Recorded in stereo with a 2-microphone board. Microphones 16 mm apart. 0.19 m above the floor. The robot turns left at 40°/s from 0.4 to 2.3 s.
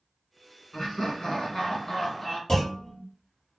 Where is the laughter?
100° left, 2.0 m; by 2.4 s 35° left, 2.0 m.